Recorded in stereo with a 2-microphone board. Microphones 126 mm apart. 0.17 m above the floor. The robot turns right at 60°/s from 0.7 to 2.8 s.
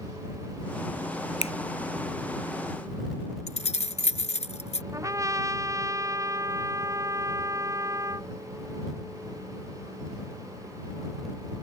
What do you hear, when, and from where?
1.4 s a finger snap: 55° left (ahead or behind)
3.5 s keys jangling: 60° left (ahead or behind)
4.9 s a trumpet: 25° right (ahead or behind)